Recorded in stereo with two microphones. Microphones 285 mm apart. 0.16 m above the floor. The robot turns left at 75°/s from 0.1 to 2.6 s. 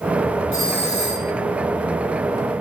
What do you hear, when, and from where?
0.5 s a doorbell: 135° left, 8.5 m; by 1.3 s 75° left, 8.5 m